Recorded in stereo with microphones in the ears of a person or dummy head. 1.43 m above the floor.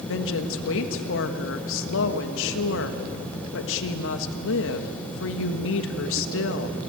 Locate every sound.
0.1 s a woman speaking: 75° left (ahead or behind), 1.3 m